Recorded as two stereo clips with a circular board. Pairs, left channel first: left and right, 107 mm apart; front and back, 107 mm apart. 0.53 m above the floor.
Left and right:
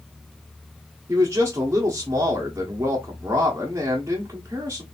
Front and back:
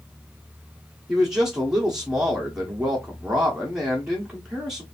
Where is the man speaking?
105° right, 1.2 m.